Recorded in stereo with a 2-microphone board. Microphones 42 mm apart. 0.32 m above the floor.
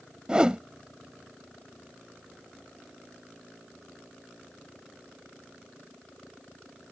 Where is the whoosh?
20° right (ahead or behind).